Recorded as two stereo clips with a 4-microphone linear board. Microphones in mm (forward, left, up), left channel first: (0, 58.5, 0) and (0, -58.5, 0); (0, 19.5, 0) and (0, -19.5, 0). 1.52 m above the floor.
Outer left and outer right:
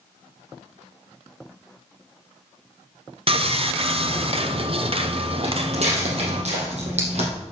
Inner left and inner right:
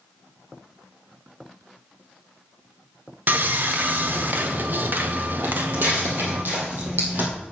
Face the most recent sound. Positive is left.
turn(degrees=-65)  # may be behind; listen again after turning